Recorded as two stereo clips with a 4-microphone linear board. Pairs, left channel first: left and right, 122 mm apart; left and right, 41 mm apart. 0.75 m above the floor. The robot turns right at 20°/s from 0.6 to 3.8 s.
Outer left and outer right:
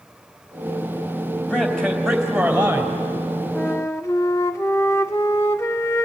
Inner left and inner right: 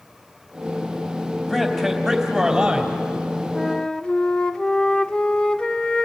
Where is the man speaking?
10° left (ahead or behind), 3.5 m; by 3.0 s 15° right (ahead or behind), 3.5 m.